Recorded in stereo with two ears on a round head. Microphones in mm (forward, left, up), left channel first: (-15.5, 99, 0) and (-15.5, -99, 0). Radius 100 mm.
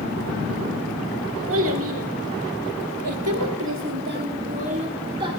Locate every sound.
1.5 s a child speaking: 70° right (ahead or behind), 2 m; by 5.3 s 20° right (ahead or behind), 2 m